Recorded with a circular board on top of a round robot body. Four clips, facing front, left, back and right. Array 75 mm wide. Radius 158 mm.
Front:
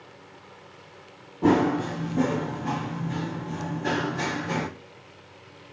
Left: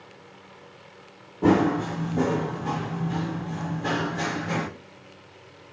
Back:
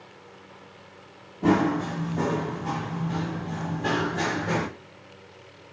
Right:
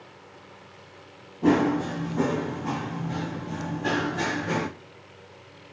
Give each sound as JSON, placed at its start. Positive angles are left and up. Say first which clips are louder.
{"t": 1.4, "sound": "running footsteps", "louder": "left 1 dB, front 1 dB", "azimuth_deg": 55, "distance_m": 1.1}